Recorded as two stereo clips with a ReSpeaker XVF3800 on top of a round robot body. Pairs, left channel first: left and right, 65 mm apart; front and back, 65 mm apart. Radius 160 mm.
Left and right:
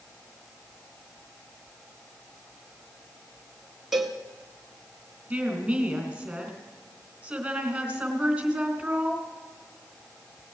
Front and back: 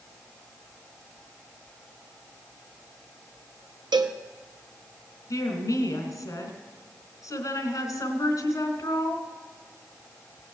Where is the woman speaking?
10° right, 3 m.